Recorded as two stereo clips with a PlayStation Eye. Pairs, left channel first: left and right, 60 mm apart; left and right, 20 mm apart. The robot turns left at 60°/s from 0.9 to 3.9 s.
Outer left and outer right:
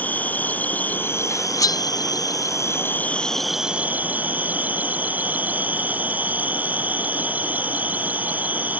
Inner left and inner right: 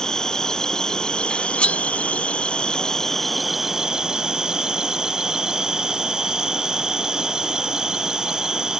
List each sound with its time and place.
0.0 s an insect: 155° left; by 8.8 s 25° right
1.3 s cutlery clinking: 50° left (ahead or behind); by 1.8 s 70° left (ahead or behind)